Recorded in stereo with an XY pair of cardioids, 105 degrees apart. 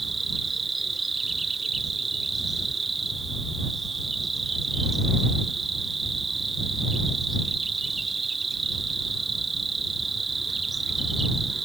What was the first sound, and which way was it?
An insect, 25° right.